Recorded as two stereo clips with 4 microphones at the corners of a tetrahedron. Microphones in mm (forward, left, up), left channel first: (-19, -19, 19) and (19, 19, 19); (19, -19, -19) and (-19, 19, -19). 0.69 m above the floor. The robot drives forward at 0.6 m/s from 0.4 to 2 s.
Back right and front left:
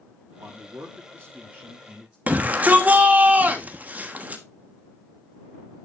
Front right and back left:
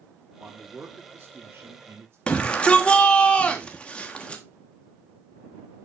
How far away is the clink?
I don't hear a clink.